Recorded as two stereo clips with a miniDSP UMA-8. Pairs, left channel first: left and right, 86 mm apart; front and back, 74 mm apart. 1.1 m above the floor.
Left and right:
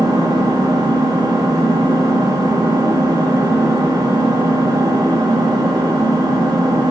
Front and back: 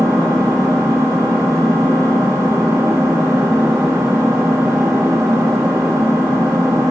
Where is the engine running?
130° right, 2.5 m.